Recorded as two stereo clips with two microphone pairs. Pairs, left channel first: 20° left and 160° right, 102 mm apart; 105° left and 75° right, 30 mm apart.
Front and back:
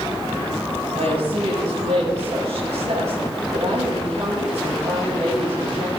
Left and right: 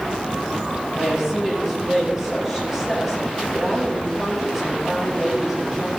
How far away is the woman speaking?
About 6.5 m.